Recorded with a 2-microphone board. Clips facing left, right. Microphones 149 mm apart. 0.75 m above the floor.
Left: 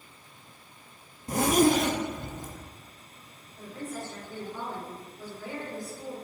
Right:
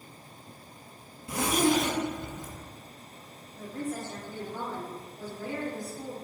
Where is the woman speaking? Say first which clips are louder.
Right 3 dB; 65° right (ahead or behind), 2.0 m.